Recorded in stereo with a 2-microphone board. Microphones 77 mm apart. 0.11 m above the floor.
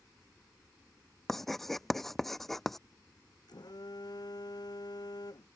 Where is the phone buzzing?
65° left (ahead or behind).